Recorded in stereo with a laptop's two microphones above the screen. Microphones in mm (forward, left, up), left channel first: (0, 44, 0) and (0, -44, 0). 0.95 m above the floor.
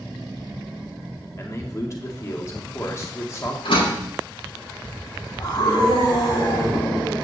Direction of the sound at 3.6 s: 85° left.